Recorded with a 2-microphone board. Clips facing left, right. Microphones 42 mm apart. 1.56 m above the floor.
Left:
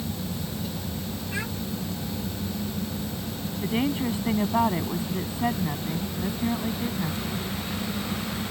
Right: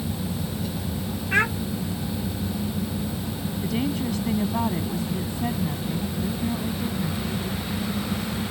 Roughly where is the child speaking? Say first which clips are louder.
Right 12 dB; right.